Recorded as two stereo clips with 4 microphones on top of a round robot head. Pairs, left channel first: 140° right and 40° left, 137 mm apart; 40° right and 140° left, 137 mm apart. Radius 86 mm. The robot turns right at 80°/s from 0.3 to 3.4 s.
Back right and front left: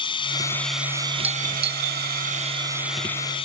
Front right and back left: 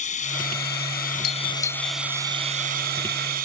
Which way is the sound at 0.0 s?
85° right.